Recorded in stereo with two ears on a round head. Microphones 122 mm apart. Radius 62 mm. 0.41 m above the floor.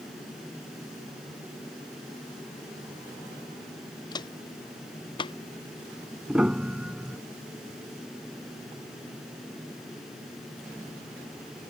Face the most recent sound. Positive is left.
turn(degrees=-5)  # may be behind; listen again after turning